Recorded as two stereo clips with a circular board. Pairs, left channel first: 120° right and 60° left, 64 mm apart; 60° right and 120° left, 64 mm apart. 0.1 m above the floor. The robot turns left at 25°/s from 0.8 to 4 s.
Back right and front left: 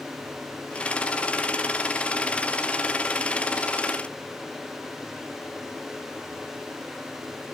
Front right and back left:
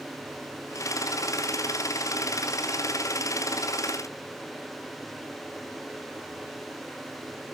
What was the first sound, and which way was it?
Only background noise.